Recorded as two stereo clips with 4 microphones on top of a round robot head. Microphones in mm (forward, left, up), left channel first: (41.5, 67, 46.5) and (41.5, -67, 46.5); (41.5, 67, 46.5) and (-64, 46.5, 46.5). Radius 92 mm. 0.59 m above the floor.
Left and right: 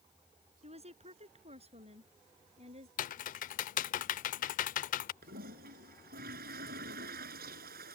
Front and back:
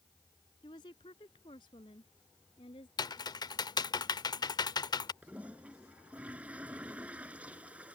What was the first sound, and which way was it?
A woman speaking, 50° right.